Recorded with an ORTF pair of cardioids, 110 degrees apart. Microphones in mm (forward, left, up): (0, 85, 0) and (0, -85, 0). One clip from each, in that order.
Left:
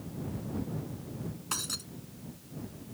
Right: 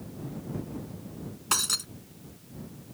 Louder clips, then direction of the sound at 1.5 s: Right 8 dB; 50° right.